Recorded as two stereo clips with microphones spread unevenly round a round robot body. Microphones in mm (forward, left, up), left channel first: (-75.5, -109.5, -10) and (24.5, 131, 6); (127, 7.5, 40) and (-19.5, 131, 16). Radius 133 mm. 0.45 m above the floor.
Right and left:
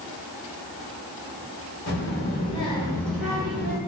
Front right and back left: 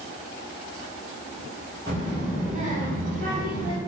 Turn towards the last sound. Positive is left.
turn(degrees=130)